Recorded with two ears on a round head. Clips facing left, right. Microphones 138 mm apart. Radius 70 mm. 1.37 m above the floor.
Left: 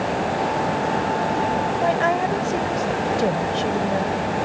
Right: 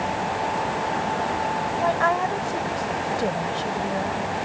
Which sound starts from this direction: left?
A woman speaking, at 1.8 s.